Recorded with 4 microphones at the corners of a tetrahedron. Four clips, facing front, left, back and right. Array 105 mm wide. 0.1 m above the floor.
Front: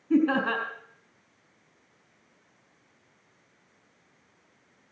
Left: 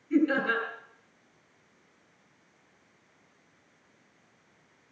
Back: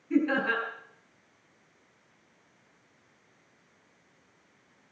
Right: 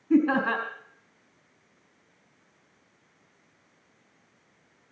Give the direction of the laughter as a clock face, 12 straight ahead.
2 o'clock.